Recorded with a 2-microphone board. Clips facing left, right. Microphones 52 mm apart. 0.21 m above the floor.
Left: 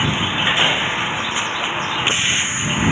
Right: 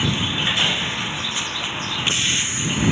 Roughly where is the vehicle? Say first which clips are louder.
Left 3 dB; left.